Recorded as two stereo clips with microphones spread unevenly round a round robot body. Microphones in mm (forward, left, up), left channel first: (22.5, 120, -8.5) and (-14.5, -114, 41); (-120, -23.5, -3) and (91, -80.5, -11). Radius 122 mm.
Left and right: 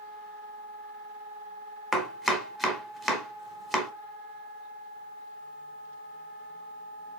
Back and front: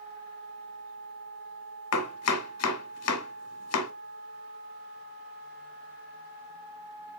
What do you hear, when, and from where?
1.9 s chopping: 170° left, 1.1 m